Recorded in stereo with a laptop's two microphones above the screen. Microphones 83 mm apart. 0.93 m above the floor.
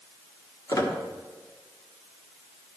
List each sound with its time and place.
0.7 s a squeak: 45° left (ahead or behind), 1.1 m